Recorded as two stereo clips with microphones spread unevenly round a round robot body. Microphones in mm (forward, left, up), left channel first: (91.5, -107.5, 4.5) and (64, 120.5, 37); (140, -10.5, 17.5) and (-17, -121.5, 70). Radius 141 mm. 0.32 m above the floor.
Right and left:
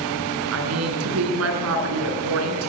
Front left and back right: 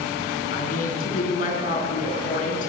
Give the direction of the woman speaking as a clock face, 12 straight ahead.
9 o'clock.